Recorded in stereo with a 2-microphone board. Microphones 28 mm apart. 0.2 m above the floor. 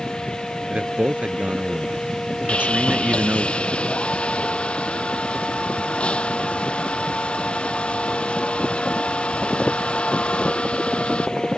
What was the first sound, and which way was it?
A man speaking, 55° right (ahead or behind).